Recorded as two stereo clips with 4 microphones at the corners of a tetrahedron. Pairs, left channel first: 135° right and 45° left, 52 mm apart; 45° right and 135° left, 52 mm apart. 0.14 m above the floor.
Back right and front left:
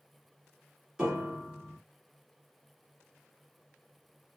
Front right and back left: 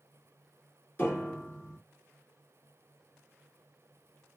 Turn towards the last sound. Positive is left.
turn(degrees=-25)